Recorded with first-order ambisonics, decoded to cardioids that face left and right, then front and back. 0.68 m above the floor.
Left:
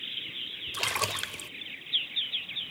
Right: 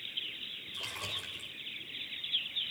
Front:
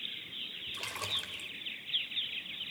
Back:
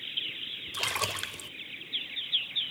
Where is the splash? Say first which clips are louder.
Left 9 dB, back 6 dB; 125° left, 0.7 m.